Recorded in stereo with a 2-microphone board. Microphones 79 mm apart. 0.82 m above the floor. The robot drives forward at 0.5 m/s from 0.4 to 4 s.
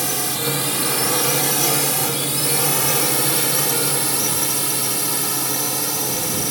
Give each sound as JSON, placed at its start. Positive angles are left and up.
{"t": 0.0, "sound": "a drone", "side_deg": 0}